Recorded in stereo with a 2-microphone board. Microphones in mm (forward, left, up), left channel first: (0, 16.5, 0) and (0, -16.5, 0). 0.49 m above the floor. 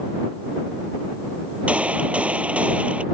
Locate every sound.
1.7 s a gunshot: 45° right (ahead or behind)